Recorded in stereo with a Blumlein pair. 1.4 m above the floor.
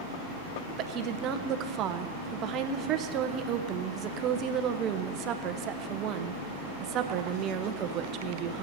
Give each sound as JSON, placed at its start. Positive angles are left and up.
{"t": 0.8, "sound": "a woman speaking", "azimuth_deg": -35, "distance_m": 1.0}